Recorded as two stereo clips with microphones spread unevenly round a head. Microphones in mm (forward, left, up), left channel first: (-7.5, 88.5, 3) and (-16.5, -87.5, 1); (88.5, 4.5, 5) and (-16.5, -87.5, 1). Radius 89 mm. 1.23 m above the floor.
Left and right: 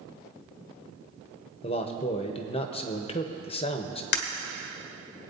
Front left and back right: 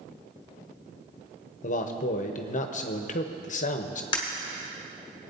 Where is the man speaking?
35° left, 0.8 m.